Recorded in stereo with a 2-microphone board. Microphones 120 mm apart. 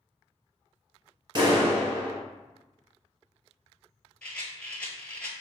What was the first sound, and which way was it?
A clap, 40° right (ahead or behind).